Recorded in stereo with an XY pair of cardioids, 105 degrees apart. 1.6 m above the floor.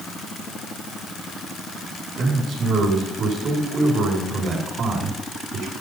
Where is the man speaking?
65° right, 6.5 m.